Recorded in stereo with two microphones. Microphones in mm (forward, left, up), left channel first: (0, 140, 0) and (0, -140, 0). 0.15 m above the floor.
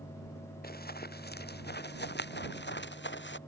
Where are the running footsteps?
35° left (ahead or behind); by 3.4 s 40° left (ahead or behind).